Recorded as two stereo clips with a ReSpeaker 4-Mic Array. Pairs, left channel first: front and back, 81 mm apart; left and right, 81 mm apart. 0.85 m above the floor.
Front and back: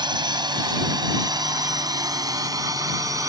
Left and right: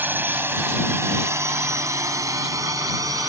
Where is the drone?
155° right; by 3.3 s 135° right.